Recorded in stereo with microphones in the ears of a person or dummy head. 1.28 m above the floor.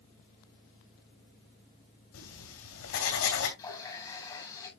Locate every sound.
2.1 s writing: 75° left (ahead or behind), 3.5 m
3.6 s a running tap: 20° left (ahead or behind), 5 m